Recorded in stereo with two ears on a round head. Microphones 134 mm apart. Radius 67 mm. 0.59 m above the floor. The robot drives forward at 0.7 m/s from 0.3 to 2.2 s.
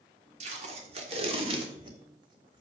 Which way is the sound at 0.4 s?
50° right (ahead or behind).